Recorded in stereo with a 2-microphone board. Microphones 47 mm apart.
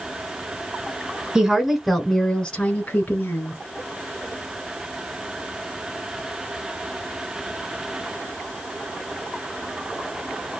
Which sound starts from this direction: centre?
A woman speaking, at 1.4 s.